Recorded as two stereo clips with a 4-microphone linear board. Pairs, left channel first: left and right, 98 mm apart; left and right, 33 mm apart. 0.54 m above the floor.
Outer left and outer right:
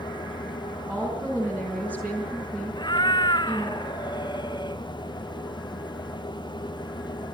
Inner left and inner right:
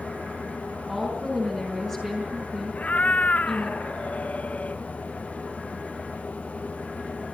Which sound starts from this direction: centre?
A woman speaking, at 0.9 s.